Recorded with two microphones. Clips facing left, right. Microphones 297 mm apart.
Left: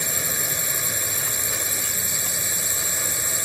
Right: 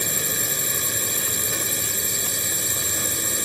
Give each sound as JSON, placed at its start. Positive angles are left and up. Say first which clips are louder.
{"t": 0.0, "sound": "a drone", "louder": "right 2 dB", "side_deg": -40}